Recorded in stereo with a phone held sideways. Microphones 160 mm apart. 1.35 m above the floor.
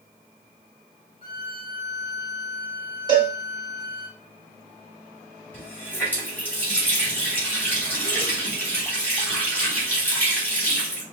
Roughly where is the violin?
Left.